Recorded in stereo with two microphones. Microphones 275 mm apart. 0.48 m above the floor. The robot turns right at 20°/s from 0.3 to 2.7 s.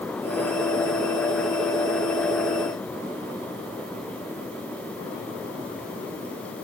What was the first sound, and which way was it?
Only background noise.